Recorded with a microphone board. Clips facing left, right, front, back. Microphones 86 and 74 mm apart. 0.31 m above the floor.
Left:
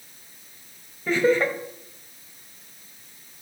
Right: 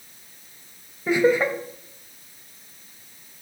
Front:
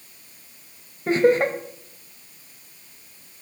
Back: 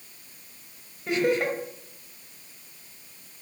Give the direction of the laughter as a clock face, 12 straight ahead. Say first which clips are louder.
Right 1 dB, front 6 dB; 1 o'clock.